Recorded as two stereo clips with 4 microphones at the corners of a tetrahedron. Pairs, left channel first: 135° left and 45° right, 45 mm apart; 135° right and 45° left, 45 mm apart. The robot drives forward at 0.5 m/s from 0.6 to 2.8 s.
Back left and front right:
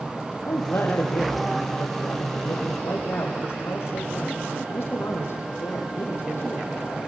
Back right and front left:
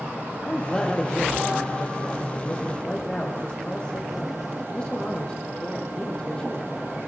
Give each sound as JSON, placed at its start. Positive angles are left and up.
{"t": 0.5, "sound": "a man speaking", "azimuth_deg": 150, "distance_m": 7.0}